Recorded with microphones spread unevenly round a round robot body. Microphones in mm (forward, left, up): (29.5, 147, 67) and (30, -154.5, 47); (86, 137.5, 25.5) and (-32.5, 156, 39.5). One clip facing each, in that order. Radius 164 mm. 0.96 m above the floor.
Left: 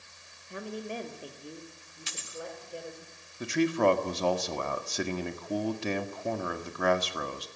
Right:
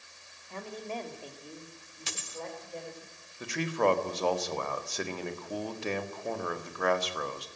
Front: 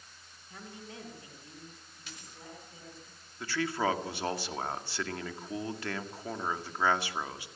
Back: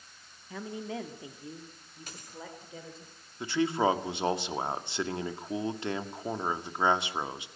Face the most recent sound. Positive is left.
turn(degrees=100)